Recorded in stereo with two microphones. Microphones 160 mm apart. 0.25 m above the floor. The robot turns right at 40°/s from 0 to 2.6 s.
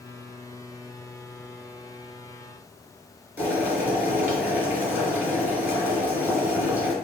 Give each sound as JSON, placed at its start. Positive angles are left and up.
{"t": 3.4, "sound": "boiling", "side_deg": -10, "distance_m": 2.0}